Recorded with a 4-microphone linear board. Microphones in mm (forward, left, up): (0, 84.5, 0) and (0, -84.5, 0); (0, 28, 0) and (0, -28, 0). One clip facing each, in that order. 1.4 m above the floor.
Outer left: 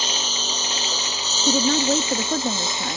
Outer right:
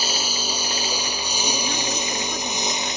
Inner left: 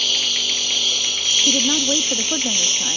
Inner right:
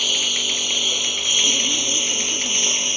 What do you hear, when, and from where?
0.0 s a lawn mower: 10° right (ahead or behind); by 3.0 s 20° right (ahead or behind)
1.5 s a woman speaking: 60° left (ahead or behind)